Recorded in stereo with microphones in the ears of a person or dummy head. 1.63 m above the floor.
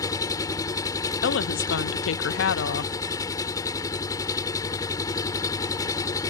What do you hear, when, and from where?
0.0 s an engine running: 20° left (ahead or behind)
1.2 s a woman speaking: 70° left (ahead or behind)